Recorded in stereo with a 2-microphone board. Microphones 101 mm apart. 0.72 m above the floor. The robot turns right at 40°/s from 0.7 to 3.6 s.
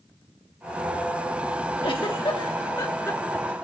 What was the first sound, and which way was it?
A giggle, 55° left (ahead or behind).